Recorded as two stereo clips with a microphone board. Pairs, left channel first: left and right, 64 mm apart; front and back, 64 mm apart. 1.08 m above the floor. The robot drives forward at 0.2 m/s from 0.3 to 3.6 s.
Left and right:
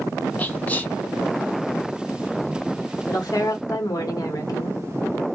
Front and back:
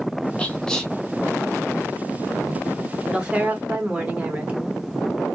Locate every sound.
0.4 s whispering: 55° left, 0.7 m; by 0.9 s 75° left, 0.6 m
3.1 s a woman speaking: 105° left, 0.9 m; by 4.8 s 110° left, 1.0 m